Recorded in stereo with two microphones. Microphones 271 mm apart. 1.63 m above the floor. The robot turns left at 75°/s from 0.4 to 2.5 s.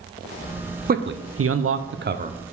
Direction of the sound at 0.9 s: 35° right (ahead or behind).